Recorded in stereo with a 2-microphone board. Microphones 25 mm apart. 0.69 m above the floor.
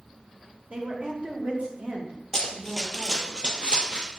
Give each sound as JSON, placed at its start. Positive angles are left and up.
{"t": 0.7, "sound": "a woman speaking", "side_deg": -45, "distance_m": 1.1}
{"t": 2.3, "sound": "running footsteps", "side_deg": 15, "distance_m": 0.9}